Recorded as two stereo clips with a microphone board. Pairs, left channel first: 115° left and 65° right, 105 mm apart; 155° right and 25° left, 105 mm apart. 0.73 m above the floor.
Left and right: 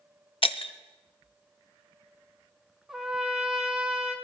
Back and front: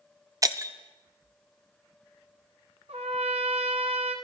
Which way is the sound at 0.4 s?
80° left.